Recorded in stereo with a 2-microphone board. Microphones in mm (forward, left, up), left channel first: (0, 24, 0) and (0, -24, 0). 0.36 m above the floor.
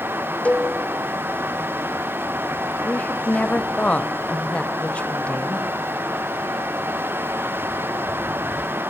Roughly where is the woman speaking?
Left.